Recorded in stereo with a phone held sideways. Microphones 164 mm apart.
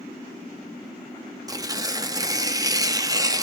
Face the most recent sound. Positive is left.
turn(degrees=-20)  # may be behind; listen again after turning